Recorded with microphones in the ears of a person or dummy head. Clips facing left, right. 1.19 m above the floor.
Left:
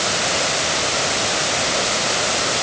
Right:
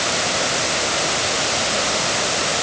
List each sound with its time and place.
Only background noise.